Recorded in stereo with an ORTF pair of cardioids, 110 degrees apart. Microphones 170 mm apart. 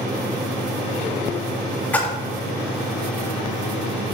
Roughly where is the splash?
Ahead.